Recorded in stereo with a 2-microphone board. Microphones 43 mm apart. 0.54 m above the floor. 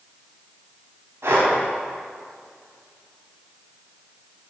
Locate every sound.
1.2 s breathing: 80° right, 2.5 m